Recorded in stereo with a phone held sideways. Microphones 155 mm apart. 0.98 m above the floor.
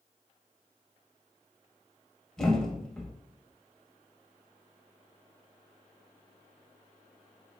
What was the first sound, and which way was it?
A thud, 5° left (ahead or behind).